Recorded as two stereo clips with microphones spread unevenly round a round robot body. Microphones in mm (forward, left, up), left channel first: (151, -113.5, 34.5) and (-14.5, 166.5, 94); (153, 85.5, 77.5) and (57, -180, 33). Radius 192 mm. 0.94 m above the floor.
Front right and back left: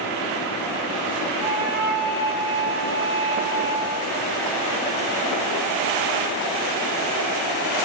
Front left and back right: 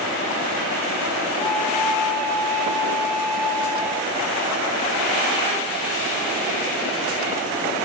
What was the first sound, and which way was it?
A flute, 105° left.